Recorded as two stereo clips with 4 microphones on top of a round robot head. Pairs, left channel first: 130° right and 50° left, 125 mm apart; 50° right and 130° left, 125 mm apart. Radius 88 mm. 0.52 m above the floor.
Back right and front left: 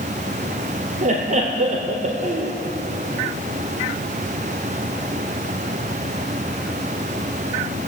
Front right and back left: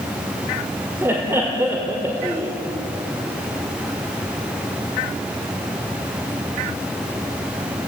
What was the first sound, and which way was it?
Laughter, 60° left.